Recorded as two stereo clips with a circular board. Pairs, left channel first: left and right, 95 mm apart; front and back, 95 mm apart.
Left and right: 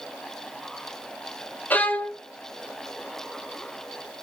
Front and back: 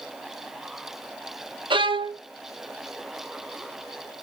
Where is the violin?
160° left, 0.6 m.